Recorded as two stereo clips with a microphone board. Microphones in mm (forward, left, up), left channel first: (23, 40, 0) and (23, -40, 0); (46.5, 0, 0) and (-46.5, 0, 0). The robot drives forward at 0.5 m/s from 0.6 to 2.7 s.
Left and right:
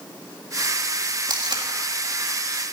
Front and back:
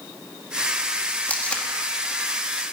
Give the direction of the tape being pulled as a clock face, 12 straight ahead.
2 o'clock.